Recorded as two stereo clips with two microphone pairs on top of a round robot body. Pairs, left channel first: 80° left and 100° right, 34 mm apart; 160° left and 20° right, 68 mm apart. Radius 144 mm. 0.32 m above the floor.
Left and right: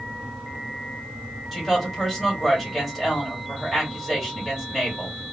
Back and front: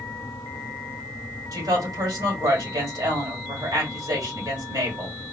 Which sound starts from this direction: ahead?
A woman speaking, at 1.5 s.